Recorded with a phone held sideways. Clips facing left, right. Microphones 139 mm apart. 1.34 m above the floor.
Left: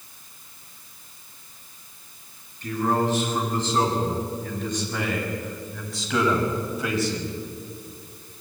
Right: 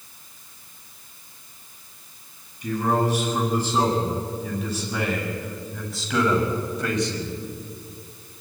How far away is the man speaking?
About 10 m.